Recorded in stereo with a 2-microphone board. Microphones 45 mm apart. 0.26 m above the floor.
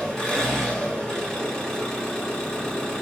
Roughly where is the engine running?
Centre.